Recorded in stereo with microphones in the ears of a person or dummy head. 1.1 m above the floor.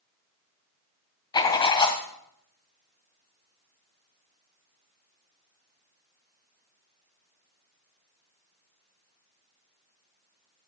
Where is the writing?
25° left (ahead or behind), 1.7 m.